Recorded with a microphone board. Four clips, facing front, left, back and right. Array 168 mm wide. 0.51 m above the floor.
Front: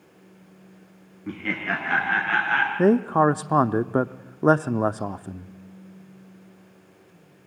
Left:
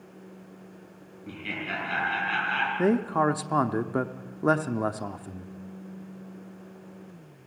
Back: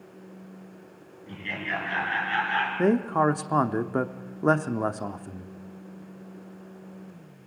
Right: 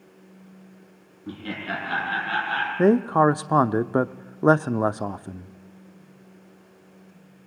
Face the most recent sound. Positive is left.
turn(degrees=-55)